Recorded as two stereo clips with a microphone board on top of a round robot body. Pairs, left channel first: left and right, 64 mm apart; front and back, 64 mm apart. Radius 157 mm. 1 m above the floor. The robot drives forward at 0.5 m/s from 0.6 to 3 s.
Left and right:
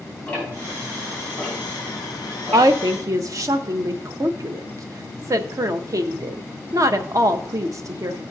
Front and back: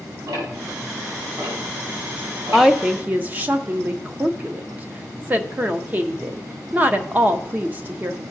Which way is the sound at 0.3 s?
165° left.